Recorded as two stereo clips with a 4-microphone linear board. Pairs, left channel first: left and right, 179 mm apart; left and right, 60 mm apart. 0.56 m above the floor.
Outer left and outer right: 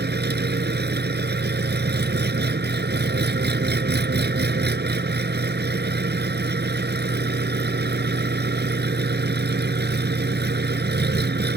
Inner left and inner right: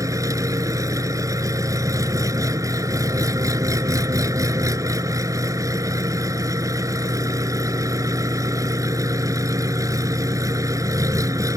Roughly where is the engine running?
Right.